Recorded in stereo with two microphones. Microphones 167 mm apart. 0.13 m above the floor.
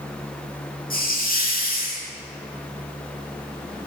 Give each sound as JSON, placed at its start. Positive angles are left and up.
{"t": 0.9, "sound": "a hiss", "side_deg": 60, "distance_m": 5.5}